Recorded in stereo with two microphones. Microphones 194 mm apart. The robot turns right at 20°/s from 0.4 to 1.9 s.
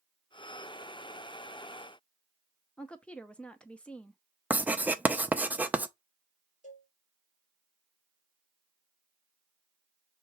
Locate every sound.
2.8 s a woman speaking: 5° left (ahead or behind), 0.7 m
4.5 s writing: 10° right (ahead or behind), 0.6 m
6.6 s a cowbell: 40° left (ahead or behind), 4 m